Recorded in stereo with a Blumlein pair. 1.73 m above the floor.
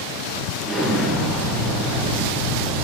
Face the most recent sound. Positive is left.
turn(degrees=-5)